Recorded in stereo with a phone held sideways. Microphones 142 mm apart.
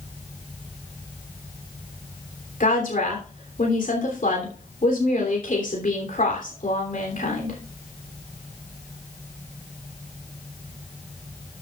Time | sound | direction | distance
2.6 | a woman speaking | 70° left (ahead or behind) | 3 m